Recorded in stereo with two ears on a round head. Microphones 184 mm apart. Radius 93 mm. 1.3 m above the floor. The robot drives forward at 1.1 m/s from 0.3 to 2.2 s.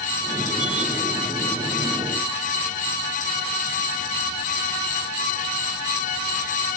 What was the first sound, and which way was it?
Only background noise.